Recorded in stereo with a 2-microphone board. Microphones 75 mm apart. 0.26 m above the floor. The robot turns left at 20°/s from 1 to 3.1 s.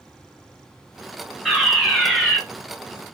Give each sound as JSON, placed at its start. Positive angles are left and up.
{"t": 1.4, "sound": "a fire alarm", "side_deg": -5, "distance_m": 2.5}